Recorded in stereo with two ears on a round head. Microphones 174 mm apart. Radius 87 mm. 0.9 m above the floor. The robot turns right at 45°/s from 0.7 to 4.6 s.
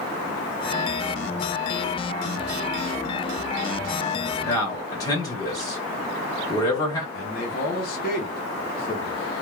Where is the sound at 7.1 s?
50° left (ahead or behind), 0.7 m.